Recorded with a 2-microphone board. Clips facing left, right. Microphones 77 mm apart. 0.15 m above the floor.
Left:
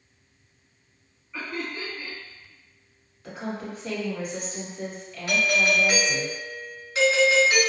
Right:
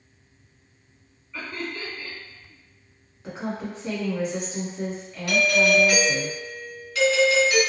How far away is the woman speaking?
About 1.2 m.